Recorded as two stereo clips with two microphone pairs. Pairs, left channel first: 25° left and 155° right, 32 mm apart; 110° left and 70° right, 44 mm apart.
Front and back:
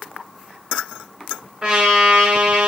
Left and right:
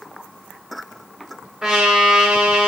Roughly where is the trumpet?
Behind right.